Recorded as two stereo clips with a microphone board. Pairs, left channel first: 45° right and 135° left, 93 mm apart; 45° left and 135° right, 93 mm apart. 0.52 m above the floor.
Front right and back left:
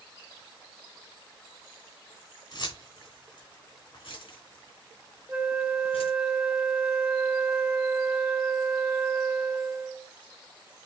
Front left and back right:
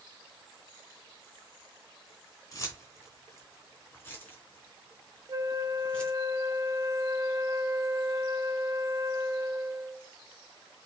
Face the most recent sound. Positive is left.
turn(degrees=-160)